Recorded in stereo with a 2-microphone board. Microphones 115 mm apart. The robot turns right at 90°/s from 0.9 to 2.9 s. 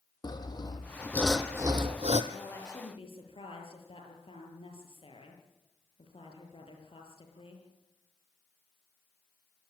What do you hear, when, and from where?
0.2 s sawing: 145° left, 1.6 m; by 2.2 s 100° right, 1.6 m
2.3 s a woman speaking: straight ahead, 7 m; by 7.6 s 55° left, 7 m